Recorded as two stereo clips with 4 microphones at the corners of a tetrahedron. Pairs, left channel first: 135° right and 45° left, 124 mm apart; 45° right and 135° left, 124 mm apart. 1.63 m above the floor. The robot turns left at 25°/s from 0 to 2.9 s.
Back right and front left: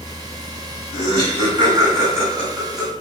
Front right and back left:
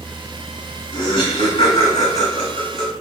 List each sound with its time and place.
0.9 s laughter: 10° left, 1.2 m; by 2.9 s 40° right, 1.2 m